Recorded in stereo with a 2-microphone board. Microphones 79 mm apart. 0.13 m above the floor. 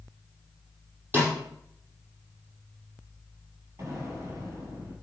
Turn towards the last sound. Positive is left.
turn(degrees=-40)  # may be behind; listen again after turning